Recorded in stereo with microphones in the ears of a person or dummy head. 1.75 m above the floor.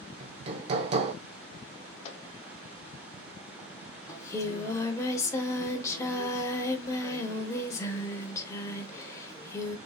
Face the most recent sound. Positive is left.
turn(degrees=20)  # may be behind; listen again after turning